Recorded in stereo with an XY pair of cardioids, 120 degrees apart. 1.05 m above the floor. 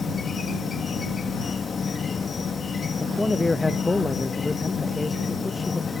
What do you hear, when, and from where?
0.0 s an insect: 30° left
3.0 s a man speaking: 15° left